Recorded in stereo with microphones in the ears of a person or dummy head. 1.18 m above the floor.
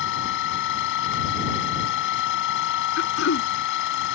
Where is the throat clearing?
75° left (ahead or behind).